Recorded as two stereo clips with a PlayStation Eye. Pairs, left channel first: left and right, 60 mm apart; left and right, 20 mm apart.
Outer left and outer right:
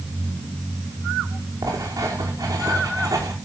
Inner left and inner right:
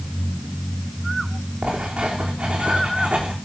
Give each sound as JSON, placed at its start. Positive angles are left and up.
{"t": 1.6, "sound": "writing", "side_deg": -75, "distance_m": 6.5}